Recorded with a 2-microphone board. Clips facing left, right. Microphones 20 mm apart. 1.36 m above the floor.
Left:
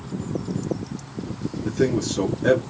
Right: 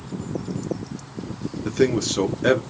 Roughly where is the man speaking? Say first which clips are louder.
Right 2 dB; right.